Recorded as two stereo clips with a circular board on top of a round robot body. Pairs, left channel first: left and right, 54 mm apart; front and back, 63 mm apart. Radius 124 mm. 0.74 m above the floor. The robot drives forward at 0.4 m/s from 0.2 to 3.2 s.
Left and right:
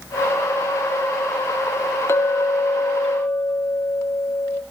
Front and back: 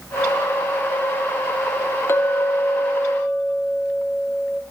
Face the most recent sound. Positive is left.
turn(degrees=65)